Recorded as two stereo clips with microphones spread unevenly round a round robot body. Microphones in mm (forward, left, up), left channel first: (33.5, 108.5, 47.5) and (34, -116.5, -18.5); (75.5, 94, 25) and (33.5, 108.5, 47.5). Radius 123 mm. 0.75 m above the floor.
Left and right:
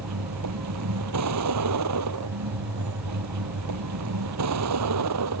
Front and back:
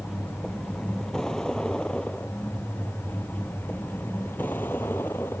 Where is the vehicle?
110° right; by 5.4 s 85° right.